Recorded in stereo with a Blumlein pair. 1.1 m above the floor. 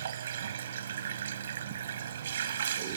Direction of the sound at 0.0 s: 65° right.